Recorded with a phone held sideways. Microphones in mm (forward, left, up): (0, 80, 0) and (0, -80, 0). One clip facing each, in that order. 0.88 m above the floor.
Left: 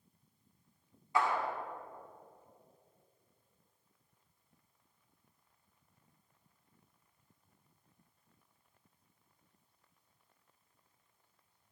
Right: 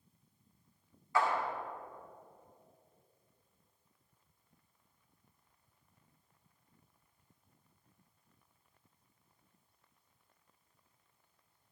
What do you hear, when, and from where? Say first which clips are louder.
1.1 s a clap: even; 20° left (ahead or behind), 2.5 m